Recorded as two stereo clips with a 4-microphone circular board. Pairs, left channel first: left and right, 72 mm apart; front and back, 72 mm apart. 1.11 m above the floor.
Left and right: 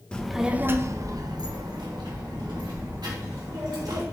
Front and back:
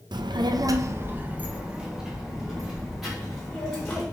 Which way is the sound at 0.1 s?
165° left.